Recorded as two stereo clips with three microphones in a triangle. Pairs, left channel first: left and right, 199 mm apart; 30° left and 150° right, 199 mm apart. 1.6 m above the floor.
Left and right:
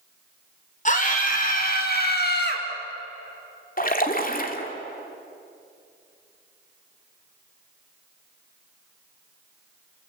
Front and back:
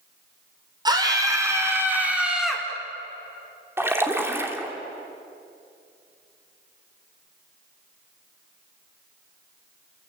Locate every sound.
0.8 s a scream: 140° left, 6 m; by 2.6 s 120° left, 4.5 m
3.8 s a splash: 130° left, 2.5 m